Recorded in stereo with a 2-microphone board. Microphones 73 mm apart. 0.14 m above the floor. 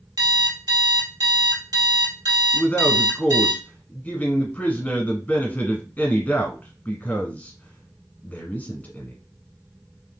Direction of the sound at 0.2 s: 70° right (ahead or behind).